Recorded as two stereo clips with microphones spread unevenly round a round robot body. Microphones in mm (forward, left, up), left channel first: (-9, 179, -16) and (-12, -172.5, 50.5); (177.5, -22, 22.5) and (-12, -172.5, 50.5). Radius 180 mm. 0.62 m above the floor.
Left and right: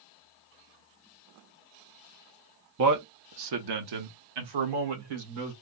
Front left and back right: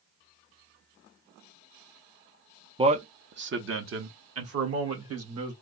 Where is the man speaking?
75° right, 0.6 m; by 5.5 s 115° right, 1.9 m.